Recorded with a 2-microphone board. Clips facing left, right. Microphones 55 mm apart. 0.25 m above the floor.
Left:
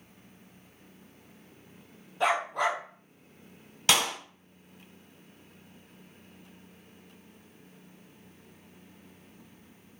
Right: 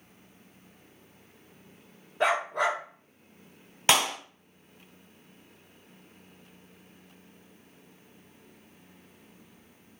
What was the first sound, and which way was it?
A dog barking, 40° right (ahead or behind).